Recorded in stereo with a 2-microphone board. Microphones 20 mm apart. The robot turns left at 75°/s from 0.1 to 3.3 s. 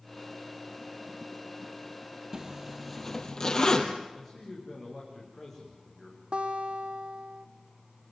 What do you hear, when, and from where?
2.3 s a zipper: 35° right (ahead or behind), 2.5 m; by 3.9 s 35° left (ahead or behind), 2.5 m
4.1 s a man speaking: 15° left (ahead or behind), 8.5 m
6.3 s a guitar: 65° right (ahead or behind), 2 m